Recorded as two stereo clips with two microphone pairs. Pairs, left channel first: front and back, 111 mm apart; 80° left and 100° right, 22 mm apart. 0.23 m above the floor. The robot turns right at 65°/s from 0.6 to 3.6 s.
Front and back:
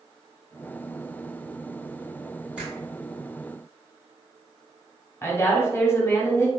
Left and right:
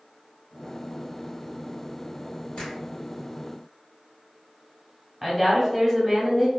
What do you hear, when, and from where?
2.6 s a finger snap: 100° left, 1.9 m; by 2.8 s 115° left, 1.9 m
5.2 s a woman speaking: 10° right, 1.1 m